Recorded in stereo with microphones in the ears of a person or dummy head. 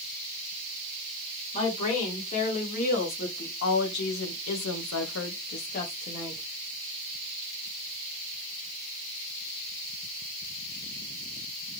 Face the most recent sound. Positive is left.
turn(degrees=35)  # may be behind; listen again after turning